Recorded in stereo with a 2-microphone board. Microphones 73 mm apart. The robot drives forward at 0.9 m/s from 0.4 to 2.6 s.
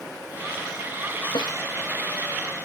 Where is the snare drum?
75° left (ahead or behind).